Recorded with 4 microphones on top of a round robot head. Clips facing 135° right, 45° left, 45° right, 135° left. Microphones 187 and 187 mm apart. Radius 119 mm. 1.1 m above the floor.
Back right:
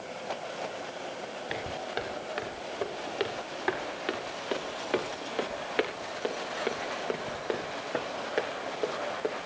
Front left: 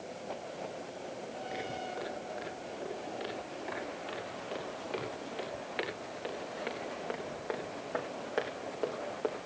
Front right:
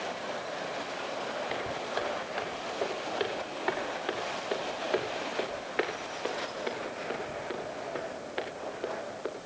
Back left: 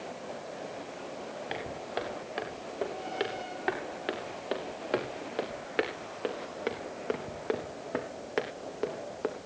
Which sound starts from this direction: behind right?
Footsteps, at 1.5 s.